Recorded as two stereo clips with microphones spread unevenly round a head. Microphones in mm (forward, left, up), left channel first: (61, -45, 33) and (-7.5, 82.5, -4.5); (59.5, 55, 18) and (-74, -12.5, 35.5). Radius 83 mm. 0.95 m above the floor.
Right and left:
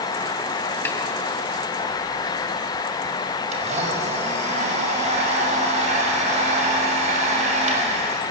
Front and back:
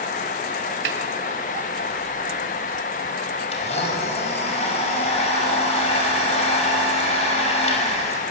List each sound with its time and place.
0.8 s a snare drum: 135° right, 2.5 m
3.5 s a blender: 75° left, 6 m